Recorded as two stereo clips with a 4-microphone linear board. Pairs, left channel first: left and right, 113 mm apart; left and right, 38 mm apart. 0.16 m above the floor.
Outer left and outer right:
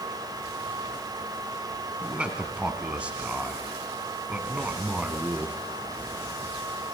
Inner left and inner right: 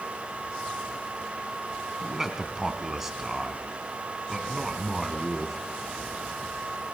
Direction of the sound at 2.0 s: 10° right (ahead or behind).